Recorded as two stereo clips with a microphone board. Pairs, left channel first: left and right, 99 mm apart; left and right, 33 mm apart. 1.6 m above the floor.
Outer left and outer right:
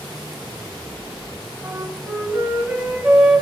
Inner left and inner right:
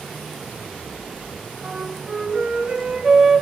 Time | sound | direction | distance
1.6 | a flute | 10° right (ahead or behind) | 3 m